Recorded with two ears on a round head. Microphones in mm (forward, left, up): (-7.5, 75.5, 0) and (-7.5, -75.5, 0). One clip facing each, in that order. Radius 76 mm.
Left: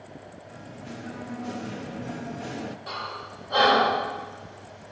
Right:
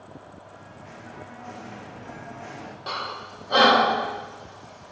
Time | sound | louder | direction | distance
0.5 | singing | left 4 dB | 40° left (ahead or behind) | 0.7 m
2.9 | breathing | right 2 dB | 60° right (ahead or behind) | 1.6 m